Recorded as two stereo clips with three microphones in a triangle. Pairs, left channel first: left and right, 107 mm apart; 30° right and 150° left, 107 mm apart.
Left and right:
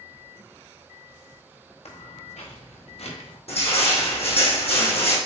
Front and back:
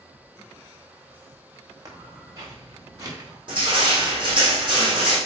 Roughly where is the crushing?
Left.